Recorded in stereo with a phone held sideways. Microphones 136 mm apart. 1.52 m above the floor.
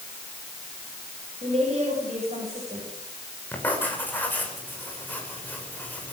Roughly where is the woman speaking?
Right.